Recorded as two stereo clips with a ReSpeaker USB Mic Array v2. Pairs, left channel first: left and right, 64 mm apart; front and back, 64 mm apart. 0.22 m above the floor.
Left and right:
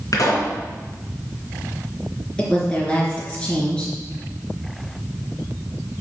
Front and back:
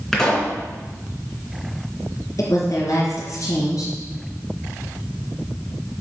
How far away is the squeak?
No squeak in this recording.